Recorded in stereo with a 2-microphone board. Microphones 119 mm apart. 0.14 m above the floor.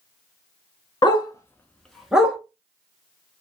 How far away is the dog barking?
About 0.6 m.